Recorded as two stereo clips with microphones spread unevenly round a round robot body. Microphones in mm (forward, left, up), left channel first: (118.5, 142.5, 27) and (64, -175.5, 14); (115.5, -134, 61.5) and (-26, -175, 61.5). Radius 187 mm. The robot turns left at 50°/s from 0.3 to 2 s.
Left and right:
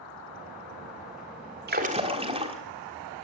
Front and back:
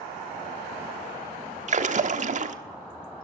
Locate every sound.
1.7 s a splash: 150° right, 1.4 m; by 2.5 s 170° right, 1.4 m